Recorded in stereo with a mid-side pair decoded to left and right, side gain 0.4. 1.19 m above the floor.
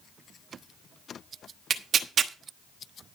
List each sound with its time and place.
1.7 s tearing paper: 55° right, 1.2 m